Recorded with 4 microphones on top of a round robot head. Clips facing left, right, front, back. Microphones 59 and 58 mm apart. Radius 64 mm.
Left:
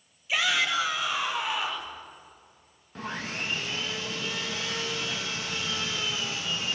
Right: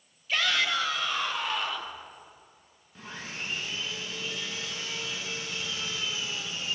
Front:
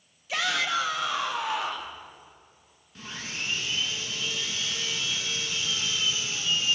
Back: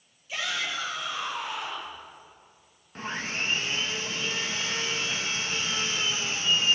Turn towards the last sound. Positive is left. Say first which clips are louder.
# left 6 dB, back 5 dB
turn(degrees=130)